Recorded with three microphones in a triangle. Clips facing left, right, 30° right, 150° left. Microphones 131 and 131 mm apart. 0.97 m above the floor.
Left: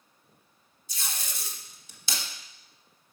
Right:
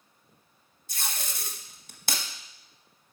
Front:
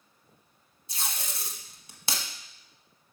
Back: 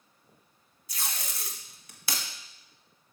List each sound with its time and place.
0.9 s tape being pulled: 85° right, 1.0 m